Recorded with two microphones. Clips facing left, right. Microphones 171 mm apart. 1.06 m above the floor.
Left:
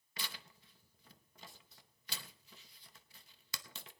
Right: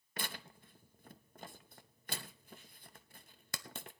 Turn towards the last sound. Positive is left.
turn(degrees=-55)  # may be behind; listen again after turning